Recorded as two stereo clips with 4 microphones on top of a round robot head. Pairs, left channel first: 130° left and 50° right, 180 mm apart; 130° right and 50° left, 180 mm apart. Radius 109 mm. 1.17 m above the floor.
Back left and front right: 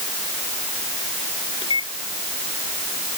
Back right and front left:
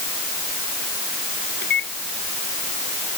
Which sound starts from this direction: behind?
A microwave, at 1.6 s.